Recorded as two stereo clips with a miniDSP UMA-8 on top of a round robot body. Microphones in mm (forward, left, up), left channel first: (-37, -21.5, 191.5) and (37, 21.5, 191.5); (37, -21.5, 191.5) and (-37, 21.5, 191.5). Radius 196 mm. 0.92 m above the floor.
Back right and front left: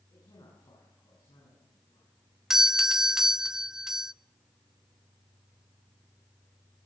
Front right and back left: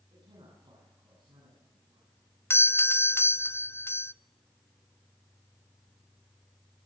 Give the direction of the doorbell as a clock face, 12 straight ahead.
2 o'clock.